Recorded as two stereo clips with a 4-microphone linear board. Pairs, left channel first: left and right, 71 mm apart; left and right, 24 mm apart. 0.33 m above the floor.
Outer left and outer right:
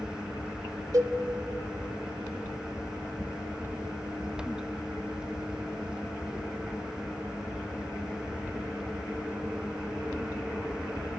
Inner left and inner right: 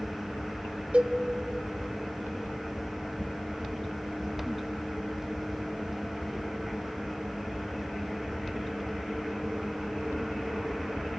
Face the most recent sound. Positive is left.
turn(degrees=-55)  # may be behind; listen again after turning